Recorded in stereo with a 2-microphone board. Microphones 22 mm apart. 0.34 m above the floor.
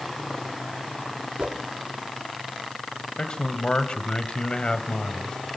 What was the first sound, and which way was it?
A whoosh, 80° right.